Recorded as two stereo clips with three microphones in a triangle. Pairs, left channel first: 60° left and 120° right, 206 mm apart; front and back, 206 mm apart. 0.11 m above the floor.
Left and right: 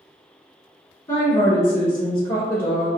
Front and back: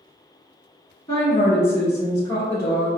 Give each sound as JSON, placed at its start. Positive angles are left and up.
{"t": 1.1, "sound": "a woman speaking", "azimuth_deg": 20, "distance_m": 1.2}